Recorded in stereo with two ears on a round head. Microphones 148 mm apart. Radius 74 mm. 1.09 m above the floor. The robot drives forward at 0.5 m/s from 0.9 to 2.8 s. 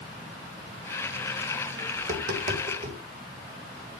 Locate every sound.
2.0 s tapping: 55° right (ahead or behind), 4.5 m; by 3.0 s 50° right (ahead or behind), 5 m